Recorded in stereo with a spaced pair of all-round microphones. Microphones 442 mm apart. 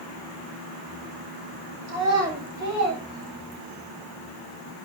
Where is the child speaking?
35° right (ahead or behind), 8 m; by 3.9 s 45° right (ahead or behind), 7 m.